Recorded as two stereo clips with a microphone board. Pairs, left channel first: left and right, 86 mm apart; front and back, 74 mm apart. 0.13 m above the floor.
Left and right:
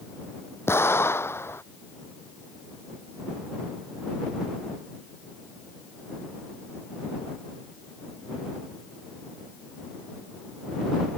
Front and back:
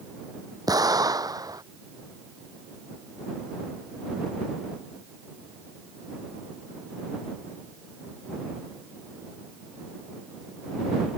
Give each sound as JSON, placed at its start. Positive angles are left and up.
{"t": 0.7, "sound": "an explosion", "azimuth_deg": 150}